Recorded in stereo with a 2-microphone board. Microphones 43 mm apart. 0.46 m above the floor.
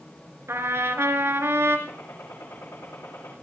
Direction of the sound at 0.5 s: 85° right.